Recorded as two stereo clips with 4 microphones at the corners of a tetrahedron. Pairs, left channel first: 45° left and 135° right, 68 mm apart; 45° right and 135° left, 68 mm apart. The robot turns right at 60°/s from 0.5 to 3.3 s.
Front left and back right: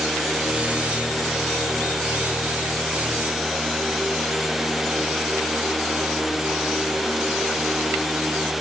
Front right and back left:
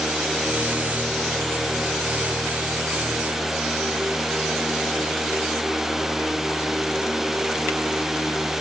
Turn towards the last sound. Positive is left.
No sound to turn to.